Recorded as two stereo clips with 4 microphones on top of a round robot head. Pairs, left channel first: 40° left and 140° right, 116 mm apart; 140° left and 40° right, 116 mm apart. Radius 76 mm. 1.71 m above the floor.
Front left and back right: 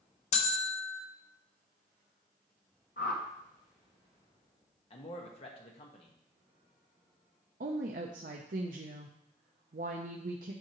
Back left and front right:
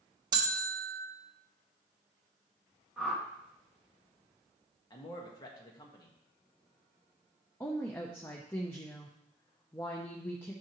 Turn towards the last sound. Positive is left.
turn(degrees=-145)